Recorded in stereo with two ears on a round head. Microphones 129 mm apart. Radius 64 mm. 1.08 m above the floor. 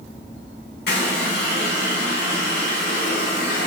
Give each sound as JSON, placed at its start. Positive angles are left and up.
{"t": 0.9, "sound": "a running tap", "side_deg": 80, "distance_m": 1.6}